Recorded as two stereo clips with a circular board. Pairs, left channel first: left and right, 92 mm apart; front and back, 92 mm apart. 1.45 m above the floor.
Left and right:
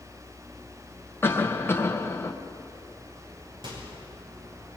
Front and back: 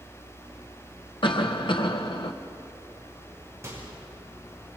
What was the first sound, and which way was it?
A cough, 25° left.